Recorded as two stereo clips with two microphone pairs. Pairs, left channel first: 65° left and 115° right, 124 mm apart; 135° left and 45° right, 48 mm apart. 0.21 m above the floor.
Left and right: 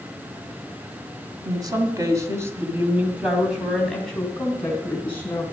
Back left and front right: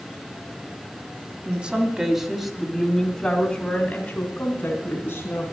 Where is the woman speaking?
90° right, 1.9 m; by 5.4 s 135° left, 2.5 m.